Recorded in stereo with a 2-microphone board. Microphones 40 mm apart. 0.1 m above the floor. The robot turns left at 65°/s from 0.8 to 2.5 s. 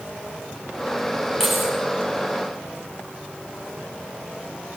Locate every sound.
1.4 s keys jangling: 10° left (ahead or behind), 6 m; by 1.8 s 15° right (ahead or behind), 6 m